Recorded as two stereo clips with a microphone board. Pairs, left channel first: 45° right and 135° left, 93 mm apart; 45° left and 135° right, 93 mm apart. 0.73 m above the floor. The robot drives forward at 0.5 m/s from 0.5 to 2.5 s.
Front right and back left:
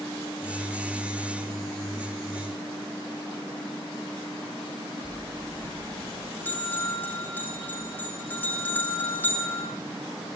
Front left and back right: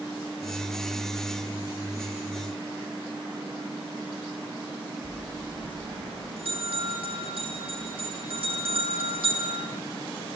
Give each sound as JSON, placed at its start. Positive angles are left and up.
{"t": 5.0, "sound": "a bell", "azimuth_deg": -115, "distance_m": 9.0}